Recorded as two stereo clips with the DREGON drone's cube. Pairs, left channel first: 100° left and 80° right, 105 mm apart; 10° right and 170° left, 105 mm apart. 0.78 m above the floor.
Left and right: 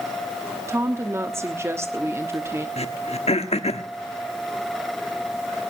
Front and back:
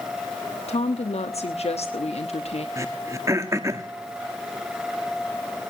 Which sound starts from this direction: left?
Throat clearing, at 2.8 s.